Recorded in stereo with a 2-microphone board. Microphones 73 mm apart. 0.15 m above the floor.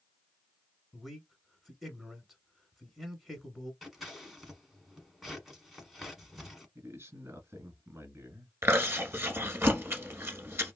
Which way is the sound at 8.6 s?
35° right (ahead or behind).